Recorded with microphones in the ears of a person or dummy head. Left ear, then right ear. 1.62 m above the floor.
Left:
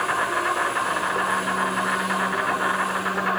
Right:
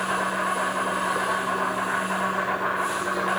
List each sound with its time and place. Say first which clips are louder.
0.0 s an insect: left 2 dB; 75° left (ahead or behind), 8 m